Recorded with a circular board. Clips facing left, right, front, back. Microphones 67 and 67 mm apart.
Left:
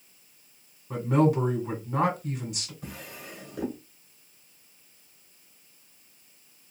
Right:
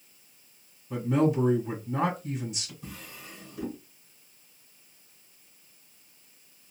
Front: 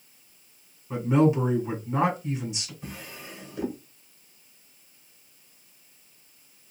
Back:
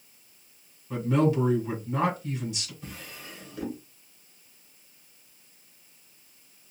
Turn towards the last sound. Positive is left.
turn(degrees=75)